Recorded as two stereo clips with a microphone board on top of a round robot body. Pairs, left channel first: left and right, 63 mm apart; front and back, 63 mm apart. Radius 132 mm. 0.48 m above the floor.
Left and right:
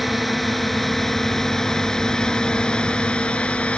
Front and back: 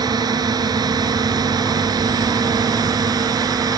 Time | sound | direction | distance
0.0 | a drone | straight behind | ?